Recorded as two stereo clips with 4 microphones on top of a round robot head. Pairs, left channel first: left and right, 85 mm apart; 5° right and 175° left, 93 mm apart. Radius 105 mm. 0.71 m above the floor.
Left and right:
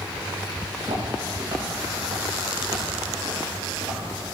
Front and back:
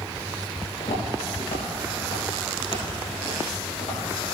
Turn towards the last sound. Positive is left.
turn(degrees=-35)